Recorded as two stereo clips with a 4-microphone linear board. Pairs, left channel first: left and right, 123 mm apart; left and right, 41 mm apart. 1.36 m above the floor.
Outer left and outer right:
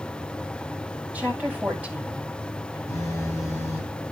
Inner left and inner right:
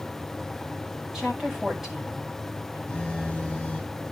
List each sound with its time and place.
1.1 s a woman speaking: 10° right (ahead or behind), 9 m
2.9 s a phone buzzing: 20° left (ahead or behind), 5 m